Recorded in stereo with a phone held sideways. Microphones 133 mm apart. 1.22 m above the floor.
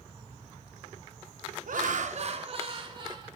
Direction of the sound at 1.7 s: 75° right (ahead or behind).